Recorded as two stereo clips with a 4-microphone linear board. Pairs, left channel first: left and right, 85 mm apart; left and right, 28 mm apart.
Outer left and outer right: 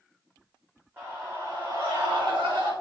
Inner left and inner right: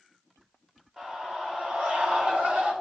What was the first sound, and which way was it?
A scream, 25° right (ahead or behind).